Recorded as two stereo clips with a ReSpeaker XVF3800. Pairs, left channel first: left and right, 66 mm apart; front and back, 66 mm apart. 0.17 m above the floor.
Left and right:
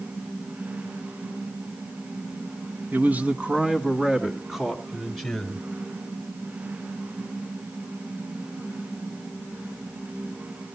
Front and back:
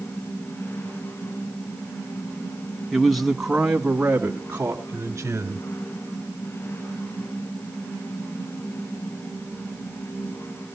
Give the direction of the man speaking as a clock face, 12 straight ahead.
3 o'clock.